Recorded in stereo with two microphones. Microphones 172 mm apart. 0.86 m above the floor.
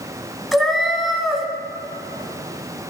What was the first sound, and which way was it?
A cat meowing, centre (ahead or behind).